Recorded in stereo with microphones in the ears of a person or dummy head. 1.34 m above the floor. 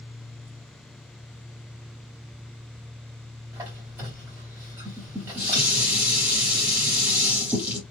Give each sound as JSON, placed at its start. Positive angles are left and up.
{"t": 3.5, "sound": "a squeak", "side_deg": -15, "distance_m": 1.7}
{"t": 4.8, "sound": "dishes clattering", "side_deg": -10, "distance_m": 1.8}